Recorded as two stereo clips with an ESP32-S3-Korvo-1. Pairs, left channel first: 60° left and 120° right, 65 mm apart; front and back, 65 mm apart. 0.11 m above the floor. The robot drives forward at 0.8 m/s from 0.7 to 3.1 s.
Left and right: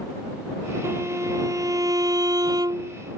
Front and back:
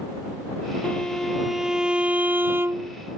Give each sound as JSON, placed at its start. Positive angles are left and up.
{"t": 0.8, "sound": "a violin", "azimuth_deg": -75}